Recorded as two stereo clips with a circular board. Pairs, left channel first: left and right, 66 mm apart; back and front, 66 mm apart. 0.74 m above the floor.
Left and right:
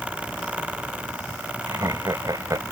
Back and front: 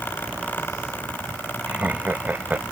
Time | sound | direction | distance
1.7 | laughter | 65° right | ?